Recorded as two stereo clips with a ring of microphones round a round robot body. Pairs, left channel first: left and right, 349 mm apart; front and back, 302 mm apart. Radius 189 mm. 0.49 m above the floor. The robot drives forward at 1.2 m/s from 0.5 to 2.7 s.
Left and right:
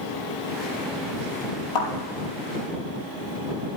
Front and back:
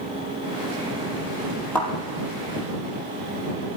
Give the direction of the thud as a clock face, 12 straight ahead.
9 o'clock.